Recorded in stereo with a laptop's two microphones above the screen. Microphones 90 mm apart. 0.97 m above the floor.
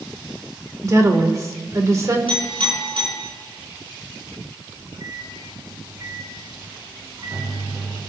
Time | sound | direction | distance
0.8 | a woman speaking | 35° right (ahead or behind) | 2.5 m
2.3 | a clink | 85° right | 7.5 m
4.7 | a microwave | 50° right (ahead or behind) | 6 m